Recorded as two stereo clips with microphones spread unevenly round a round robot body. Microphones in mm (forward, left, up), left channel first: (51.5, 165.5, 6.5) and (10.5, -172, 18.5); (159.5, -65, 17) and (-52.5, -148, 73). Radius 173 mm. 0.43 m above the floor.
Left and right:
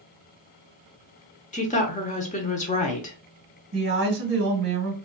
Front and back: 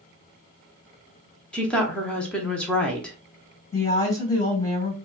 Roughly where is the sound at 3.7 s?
Ahead right.